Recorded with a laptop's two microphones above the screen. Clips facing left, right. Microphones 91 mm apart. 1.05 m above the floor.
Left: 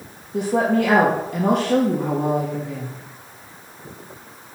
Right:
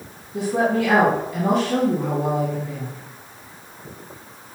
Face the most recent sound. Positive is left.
turn(degrees=55)  # may be behind; listen again after turning